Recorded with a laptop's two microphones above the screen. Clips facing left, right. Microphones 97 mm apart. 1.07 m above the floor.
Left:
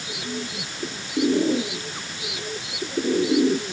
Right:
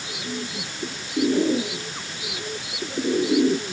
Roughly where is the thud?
No thud in this recording.